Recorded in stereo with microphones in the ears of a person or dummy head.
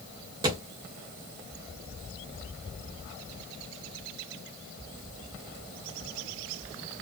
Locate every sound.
0.4 s a thud: 20° right (ahead or behind), 1.3 m